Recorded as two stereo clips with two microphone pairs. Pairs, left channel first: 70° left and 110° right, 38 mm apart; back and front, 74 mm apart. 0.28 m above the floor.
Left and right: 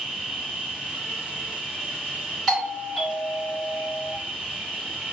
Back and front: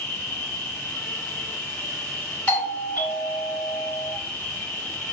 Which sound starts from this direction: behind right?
An insect, at 0.0 s.